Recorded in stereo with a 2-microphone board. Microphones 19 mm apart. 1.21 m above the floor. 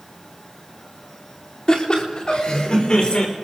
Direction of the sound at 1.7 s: 40° left (ahead or behind).